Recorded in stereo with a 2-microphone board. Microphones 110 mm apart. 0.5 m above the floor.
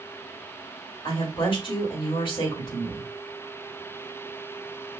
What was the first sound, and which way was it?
A woman speaking, 50° left (ahead or behind).